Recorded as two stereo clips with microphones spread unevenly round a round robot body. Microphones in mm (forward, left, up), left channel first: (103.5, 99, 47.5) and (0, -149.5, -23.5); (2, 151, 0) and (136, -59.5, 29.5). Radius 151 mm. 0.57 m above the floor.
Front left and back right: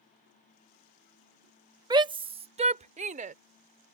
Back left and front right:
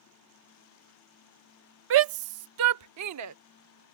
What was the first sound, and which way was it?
A shout, 60° right.